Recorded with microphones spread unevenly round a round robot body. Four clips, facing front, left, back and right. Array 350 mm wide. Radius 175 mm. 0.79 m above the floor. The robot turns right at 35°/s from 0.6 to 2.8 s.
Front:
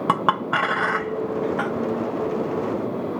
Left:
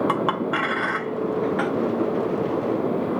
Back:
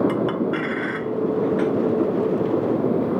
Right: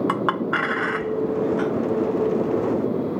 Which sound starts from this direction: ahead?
A clink, at 0.1 s.